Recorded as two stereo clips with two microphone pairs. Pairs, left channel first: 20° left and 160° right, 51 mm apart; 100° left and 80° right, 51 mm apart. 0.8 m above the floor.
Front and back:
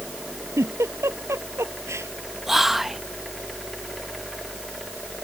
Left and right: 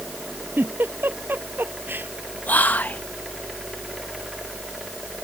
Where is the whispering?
125° left.